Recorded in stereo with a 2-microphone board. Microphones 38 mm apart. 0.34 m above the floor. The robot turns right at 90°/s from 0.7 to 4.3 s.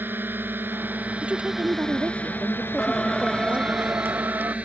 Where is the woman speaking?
150° right; by 3.8 s 85° left.